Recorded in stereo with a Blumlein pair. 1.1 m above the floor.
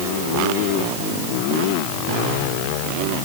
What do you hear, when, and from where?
Only background noise.